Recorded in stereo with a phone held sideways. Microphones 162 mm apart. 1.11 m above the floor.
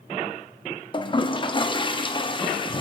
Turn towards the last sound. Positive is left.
turn(degrees=30)  # may be behind; listen again after turning